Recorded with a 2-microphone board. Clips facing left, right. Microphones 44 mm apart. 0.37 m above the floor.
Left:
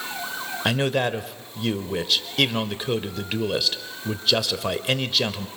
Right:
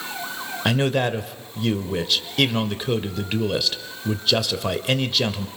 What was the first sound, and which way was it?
A man speaking, centre (ahead or behind).